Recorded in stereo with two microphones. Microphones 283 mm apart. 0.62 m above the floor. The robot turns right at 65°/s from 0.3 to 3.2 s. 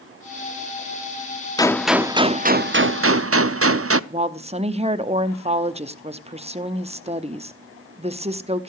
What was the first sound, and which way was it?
A gunshot, 160° left.